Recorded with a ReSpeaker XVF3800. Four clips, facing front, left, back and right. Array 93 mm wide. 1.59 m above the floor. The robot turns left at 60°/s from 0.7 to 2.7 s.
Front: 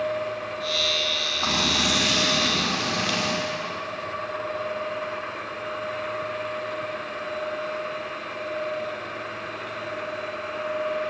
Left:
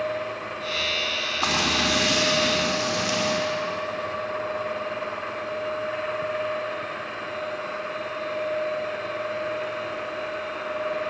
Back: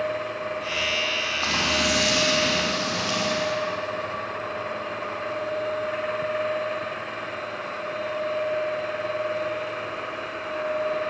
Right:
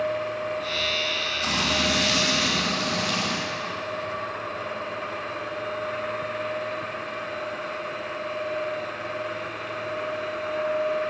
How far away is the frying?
About 6 m.